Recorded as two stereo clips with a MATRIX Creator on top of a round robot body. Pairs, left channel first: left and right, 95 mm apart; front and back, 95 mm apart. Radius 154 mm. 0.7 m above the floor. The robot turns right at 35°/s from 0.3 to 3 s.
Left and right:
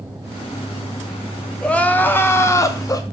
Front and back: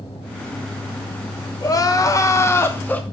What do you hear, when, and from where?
1.6 s crying: 15° left, 0.6 m; by 3.0 s 65° left, 0.6 m